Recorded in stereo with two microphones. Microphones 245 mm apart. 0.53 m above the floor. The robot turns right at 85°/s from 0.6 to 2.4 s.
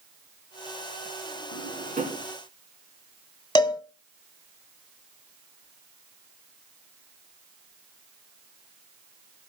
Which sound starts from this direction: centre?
A cowbell, at 3.5 s.